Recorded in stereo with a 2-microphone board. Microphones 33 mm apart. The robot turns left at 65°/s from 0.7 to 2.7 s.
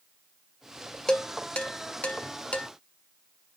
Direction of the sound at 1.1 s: 20° left (ahead or behind).